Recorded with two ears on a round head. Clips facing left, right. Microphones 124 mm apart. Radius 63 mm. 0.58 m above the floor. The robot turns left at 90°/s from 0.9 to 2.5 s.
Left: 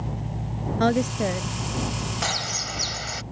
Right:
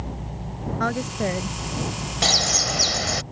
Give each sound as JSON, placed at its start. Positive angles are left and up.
{"t": 0.8, "sound": "a woman speaking", "azimuth_deg": 30}
{"t": 2.2, "sound": "a bird", "side_deg": -30}